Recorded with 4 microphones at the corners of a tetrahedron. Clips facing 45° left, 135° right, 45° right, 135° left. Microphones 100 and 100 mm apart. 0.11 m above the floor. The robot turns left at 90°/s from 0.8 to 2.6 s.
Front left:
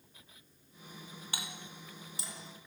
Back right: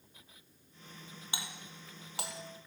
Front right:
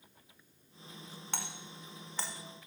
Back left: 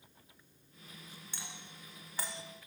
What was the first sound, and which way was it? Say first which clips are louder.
A doorbell: even, front right 9 dB; 65° right.